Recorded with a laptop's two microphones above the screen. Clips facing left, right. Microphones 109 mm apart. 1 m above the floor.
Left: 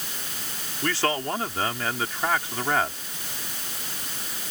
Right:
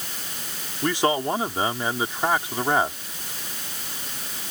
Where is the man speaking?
20° right (ahead or behind).